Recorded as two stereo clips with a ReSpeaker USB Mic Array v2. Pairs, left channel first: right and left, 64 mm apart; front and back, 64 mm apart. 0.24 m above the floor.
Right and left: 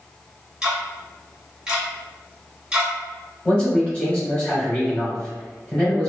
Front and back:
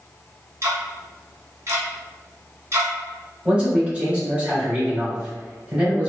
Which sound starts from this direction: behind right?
A man speaking, at 3.5 s.